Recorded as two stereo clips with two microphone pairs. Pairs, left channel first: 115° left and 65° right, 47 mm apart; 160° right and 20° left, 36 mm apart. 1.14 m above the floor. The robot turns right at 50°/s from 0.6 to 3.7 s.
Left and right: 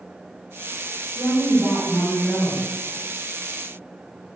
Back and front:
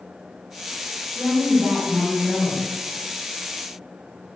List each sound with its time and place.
1.1 s a woman speaking: 80° right, 1.3 m; by 2.7 s 5° right, 1.3 m